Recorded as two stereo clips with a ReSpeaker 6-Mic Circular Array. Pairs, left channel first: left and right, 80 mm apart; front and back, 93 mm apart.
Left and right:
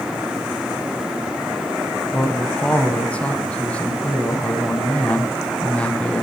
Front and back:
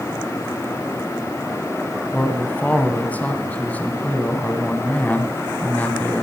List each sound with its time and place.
2.1 s a man speaking: 45° left, 1.3 m